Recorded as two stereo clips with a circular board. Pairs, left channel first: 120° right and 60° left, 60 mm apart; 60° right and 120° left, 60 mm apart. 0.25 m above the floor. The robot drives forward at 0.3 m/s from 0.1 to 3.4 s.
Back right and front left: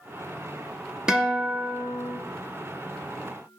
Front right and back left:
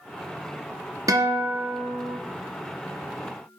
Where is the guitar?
135° left, 1.7 m; by 2.2 s 145° left, 1.9 m.